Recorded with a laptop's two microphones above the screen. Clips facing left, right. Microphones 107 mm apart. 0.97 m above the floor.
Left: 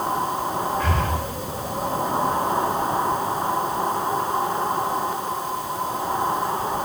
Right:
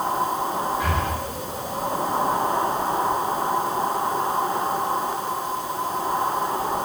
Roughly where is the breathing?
Centre.